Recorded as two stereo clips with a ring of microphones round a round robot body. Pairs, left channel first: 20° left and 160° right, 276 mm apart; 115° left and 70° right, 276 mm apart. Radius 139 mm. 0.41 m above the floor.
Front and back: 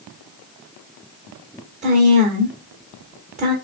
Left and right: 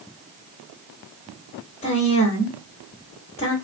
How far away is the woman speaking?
About 1.0 m.